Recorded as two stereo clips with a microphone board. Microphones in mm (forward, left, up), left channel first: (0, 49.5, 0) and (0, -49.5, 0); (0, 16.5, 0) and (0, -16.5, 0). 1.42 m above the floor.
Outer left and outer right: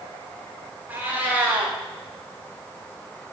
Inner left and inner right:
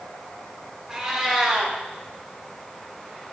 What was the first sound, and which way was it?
A cat meowing, 20° right (ahead or behind).